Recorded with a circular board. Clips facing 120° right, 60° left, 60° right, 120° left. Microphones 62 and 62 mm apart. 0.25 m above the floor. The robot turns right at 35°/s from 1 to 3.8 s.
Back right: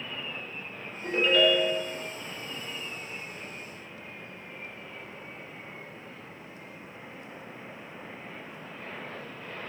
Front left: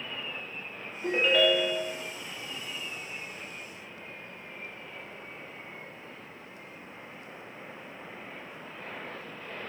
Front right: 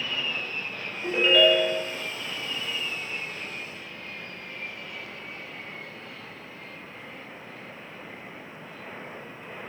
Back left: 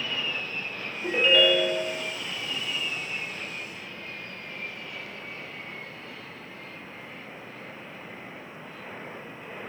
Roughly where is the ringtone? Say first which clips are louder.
Back right 1 dB, front right 1 dB; ahead.